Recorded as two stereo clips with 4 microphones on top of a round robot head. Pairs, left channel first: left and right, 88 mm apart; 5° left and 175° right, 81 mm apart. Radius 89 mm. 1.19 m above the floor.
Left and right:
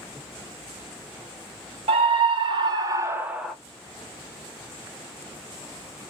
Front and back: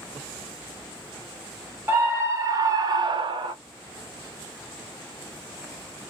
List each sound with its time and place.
1.9 s a scream: 110° right, 1.0 m; by 3.5 s straight behind, 0.6 m